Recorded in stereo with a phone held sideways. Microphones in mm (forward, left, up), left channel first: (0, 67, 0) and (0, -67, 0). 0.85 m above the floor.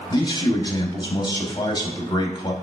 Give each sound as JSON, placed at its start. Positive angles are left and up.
{"t": 0.1, "sound": "a man speaking", "side_deg": 30, "distance_m": 0.7}